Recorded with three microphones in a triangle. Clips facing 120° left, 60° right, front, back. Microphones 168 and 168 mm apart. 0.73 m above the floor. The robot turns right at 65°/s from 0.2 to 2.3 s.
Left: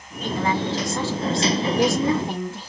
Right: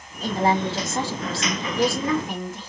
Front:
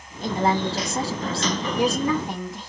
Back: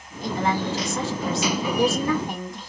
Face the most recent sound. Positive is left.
turn(degrees=85)